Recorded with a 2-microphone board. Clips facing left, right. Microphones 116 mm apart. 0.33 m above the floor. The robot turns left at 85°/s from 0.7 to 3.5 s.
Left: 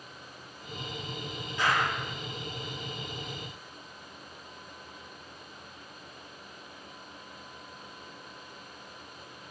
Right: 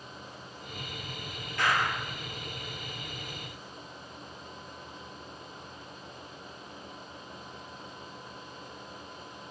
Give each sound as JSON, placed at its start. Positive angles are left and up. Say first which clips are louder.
{"t": 1.6, "sound": "a clap", "louder": "even", "azimuth_deg": 165, "distance_m": 5.0}